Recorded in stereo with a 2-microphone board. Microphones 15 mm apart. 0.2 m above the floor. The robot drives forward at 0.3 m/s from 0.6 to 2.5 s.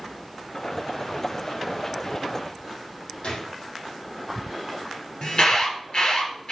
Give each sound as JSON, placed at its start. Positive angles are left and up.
{"t": 3.2, "sound": "a gunshot", "side_deg": 75, "distance_m": 2.5}
{"t": 5.2, "sound": "an alarm", "side_deg": 70, "distance_m": 3.0}